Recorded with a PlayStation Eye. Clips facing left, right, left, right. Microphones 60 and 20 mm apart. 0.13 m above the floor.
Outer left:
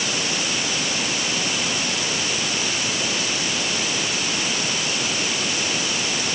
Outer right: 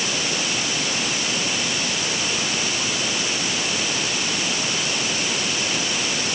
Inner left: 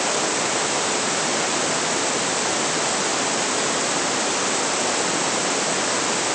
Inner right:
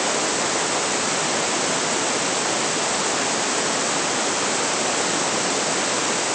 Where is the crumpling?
I don't hear crumpling.